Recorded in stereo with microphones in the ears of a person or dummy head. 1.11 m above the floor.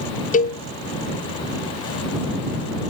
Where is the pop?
I don't hear a pop.